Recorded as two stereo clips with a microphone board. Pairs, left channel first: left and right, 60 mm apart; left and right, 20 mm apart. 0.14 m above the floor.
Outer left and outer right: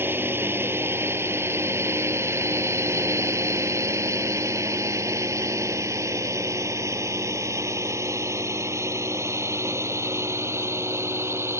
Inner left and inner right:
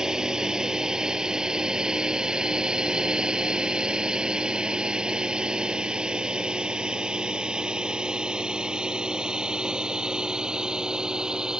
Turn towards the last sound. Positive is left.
turn(degrees=-50)  # may be behind; listen again after turning